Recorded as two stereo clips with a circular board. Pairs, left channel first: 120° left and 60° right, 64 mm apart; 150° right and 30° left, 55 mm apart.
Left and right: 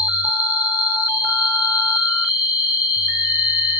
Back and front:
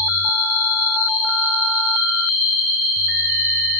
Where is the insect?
5° left, 2.5 m.